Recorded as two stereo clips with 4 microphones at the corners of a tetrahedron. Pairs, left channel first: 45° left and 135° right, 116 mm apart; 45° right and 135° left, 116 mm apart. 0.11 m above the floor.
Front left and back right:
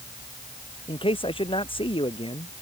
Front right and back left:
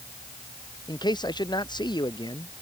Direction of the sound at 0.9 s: 5° left.